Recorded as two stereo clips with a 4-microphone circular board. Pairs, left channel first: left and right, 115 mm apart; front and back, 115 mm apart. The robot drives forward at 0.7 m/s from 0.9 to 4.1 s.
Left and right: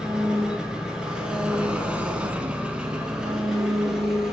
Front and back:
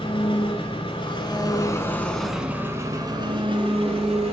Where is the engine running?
10° right, 1.3 m; by 4.3 s 175° right, 1.5 m.